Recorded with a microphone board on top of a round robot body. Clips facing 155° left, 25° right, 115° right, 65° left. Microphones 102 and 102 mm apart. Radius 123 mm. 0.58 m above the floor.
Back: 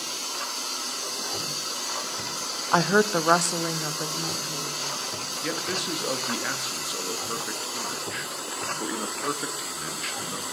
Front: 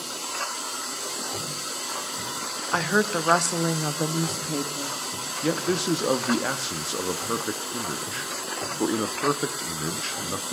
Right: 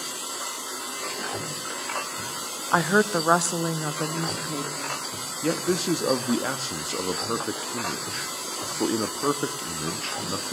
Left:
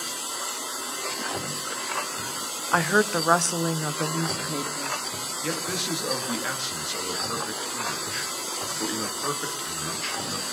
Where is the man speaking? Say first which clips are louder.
Front 7 dB, right 7 dB; 75° right, 0.9 m.